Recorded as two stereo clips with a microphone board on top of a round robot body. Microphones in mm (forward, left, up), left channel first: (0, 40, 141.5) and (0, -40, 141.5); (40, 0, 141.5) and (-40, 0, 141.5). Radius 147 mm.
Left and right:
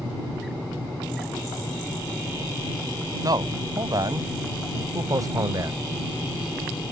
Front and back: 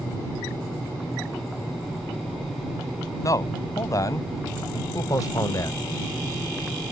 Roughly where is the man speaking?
Ahead right.